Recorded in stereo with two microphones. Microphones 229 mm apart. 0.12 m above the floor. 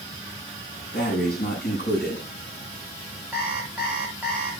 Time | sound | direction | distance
0.9 | breathing | 40° left (ahead or behind) | 8 m
3.3 | an alarm clock | 5° right (ahead or behind) | 5 m